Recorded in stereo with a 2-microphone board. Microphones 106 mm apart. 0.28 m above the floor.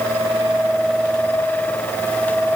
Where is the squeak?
I don't hear a squeak.